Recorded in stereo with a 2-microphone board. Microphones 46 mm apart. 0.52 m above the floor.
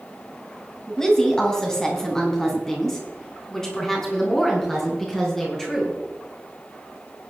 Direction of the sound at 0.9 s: 15° left (ahead or behind).